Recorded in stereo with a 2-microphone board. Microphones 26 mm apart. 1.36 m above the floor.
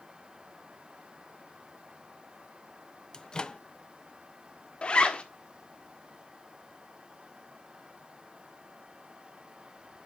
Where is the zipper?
45° left (ahead or behind), 1.3 m.